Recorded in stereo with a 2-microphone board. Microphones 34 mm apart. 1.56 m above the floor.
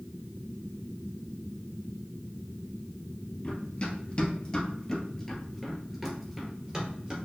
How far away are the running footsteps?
About 1.9 m.